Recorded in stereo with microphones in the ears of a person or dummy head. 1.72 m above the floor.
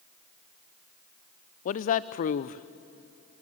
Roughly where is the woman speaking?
Left.